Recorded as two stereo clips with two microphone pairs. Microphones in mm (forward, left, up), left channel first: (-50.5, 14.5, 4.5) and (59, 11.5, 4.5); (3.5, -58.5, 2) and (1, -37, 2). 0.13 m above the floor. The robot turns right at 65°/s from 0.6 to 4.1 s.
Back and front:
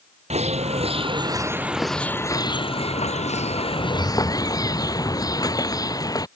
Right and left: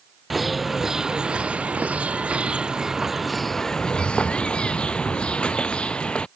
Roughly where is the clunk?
No clunk in this recording.